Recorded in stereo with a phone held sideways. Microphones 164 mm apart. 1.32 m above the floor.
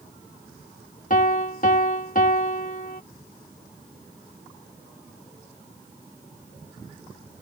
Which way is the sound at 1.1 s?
55° left (ahead or behind).